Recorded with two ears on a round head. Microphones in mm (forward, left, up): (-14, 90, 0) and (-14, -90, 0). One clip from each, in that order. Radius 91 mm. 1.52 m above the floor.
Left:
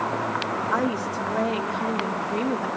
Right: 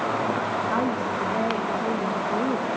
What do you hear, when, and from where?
0.7 s a woman speaking: 70° left (ahead or behind), 3.5 m